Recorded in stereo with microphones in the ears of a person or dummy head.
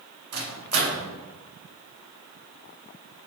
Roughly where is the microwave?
Right.